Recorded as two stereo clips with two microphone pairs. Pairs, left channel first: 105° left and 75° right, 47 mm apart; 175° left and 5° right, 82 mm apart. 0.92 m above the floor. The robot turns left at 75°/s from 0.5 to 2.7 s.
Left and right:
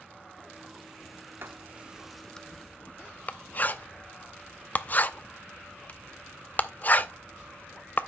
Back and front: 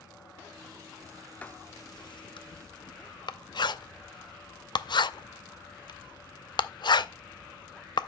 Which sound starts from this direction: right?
Writing, at 1.4 s.